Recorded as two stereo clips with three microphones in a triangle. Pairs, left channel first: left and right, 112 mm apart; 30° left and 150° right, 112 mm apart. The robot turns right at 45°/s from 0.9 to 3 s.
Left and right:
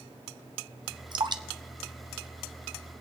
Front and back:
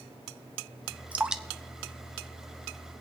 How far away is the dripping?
About 0.6 m.